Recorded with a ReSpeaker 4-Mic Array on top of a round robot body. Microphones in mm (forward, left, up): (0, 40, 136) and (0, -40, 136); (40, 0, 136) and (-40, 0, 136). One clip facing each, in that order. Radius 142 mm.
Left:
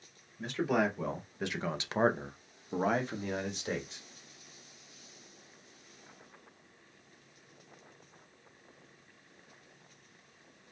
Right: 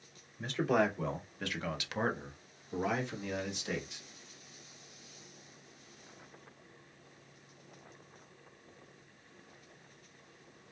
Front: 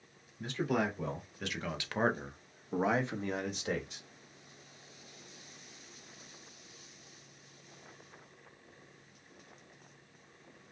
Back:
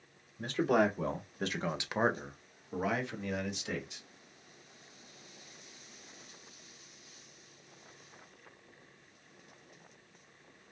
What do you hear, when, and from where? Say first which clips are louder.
0.4 s a man speaking: even, back 4 dB; straight behind, 1.3 m; by 4.0 s 40° left, 1.5 m